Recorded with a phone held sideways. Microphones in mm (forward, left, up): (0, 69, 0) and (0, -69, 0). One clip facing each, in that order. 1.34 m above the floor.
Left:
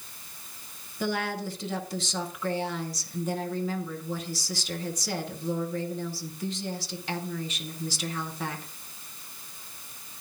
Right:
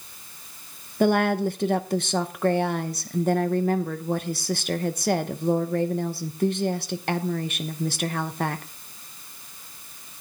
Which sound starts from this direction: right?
A woman speaking, at 1.0 s.